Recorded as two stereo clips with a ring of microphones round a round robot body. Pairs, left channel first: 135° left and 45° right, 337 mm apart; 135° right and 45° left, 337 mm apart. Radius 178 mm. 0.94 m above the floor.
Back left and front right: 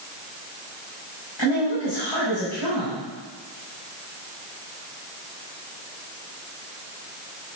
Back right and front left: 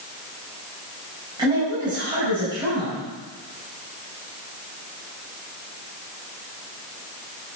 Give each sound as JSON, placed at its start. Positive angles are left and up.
{"t": 1.4, "sound": "a woman speaking", "azimuth_deg": 120, "distance_m": 6.5}